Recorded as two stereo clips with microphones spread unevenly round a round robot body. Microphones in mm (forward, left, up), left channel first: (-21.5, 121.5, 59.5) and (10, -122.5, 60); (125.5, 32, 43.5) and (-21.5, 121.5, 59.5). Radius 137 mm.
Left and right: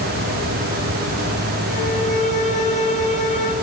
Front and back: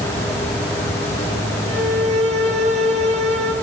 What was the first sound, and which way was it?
A violin, 160° left.